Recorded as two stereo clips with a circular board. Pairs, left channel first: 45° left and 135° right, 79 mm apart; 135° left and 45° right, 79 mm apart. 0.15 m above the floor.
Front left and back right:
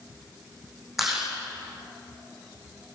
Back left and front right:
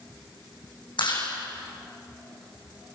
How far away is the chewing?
About 7.5 m.